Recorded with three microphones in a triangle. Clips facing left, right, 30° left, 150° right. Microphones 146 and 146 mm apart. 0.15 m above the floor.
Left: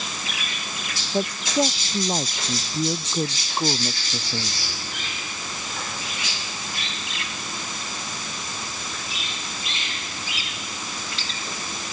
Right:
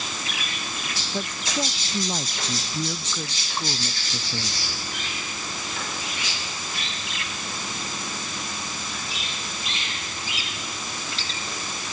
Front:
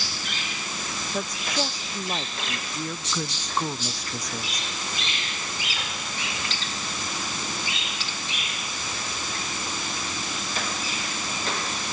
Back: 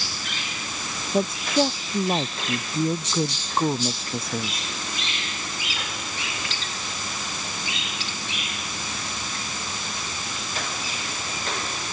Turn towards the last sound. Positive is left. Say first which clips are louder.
# left 7 dB, back 8 dB
turn(degrees=145)